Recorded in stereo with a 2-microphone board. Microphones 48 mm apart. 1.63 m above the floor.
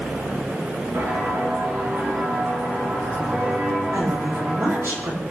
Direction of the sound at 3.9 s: 65° right (ahead or behind).